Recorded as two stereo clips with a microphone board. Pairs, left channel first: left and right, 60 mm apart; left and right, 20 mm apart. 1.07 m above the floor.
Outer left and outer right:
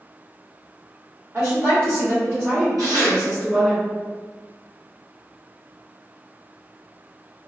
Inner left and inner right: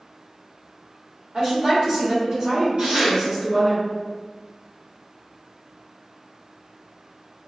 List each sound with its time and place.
1.3 s a woman speaking: 45° right (ahead or behind), 1.6 m; by 3.8 s 15° left (ahead or behind), 0.6 m
2.8 s tearing paper: 80° right, 1.3 m